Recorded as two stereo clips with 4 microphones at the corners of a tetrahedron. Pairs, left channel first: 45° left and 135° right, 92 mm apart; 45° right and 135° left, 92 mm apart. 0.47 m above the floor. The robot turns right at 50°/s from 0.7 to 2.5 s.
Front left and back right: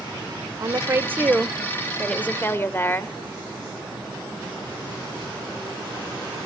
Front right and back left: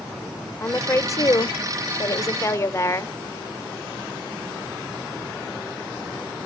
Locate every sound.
0.6 s a woman speaking: 95° right, 1.0 m; by 3.1 s 5° right, 1.0 m